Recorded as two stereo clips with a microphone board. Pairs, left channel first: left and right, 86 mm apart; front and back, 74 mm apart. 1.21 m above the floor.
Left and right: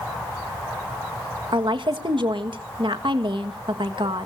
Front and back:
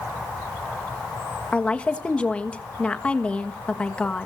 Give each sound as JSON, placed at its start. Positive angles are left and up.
{"t": 1.5, "sound": "a woman speaking", "azimuth_deg": -75, "distance_m": 1.5}